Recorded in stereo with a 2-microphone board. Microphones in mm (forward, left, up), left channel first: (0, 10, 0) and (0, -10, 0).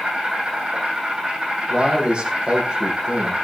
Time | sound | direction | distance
0.0 | an insect | 65° right (ahead or behind) | 5.5 m
1.7 | a man speaking | 65° right (ahead or behind) | 5.5 m